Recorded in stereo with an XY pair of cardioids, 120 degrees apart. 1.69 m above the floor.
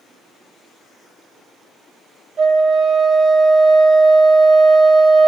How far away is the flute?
About 0.7 m.